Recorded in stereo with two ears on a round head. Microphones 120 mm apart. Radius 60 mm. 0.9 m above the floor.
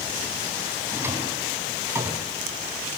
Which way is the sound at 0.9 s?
20° right (ahead or behind).